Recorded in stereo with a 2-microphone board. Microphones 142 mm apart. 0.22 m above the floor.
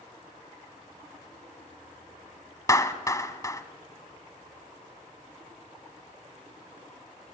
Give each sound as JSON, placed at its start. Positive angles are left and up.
{"t": 2.7, "sound": "a clap", "side_deg": 25, "distance_m": 1.3}